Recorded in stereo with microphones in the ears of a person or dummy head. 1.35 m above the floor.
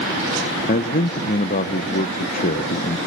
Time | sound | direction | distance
0.7 | a man speaking | 40° left (ahead or behind) | 1.0 m